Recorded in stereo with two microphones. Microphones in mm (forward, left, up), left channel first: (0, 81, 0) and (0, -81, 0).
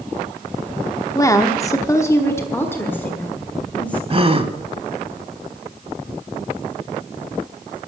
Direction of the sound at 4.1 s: 35° right (ahead or behind).